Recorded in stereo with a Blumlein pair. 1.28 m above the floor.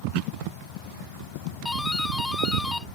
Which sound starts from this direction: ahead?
A doorbell, at 1.6 s.